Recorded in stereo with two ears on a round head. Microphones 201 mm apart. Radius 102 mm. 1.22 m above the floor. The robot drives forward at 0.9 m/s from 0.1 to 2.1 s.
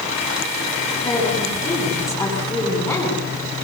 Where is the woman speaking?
15° left (ahead or behind), 9.5 m.